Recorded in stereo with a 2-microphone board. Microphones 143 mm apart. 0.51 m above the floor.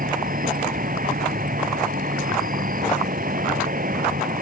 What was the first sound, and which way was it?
An insect, 85° right.